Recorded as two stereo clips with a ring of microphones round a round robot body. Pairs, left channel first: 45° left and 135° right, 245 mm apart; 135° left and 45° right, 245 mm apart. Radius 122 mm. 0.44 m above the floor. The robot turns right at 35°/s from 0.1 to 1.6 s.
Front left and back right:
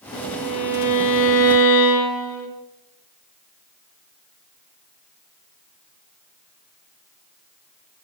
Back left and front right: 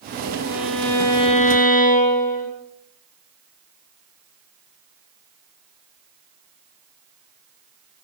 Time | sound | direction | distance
0.1 | a violin | 25° left | 6.5 m